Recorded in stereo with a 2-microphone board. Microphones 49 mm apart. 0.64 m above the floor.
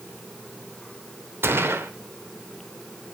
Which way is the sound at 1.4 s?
55° right (ahead or behind).